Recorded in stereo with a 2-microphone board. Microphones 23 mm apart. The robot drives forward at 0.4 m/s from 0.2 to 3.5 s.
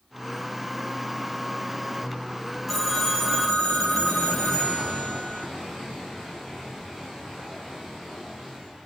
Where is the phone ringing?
10° left (ahead or behind), 0.8 m; by 5.5 s 5° left (ahead or behind), 1.1 m.